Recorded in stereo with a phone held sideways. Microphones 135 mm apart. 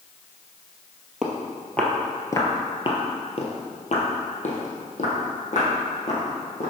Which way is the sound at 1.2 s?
5° right (ahead or behind).